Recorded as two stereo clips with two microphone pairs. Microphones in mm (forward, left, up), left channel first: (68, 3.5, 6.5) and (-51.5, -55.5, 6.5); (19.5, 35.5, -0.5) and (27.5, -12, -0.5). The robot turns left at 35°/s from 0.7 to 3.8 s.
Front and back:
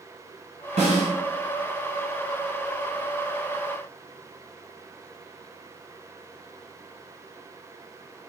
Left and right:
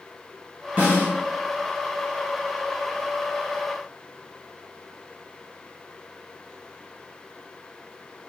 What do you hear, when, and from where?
0.8 s a snare drum: 130° right, 1.8 m; by 1.1 s 145° right, 1.8 m